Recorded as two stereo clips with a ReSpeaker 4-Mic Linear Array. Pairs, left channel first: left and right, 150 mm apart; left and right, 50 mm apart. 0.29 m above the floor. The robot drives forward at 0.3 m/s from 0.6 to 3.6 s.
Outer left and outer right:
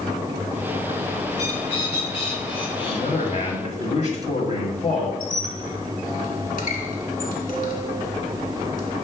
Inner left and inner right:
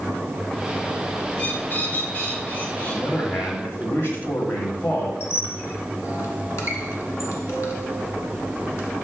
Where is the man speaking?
55° left (ahead or behind), 1.9 m; by 5.1 s 50° left (ahead or behind), 1.9 m.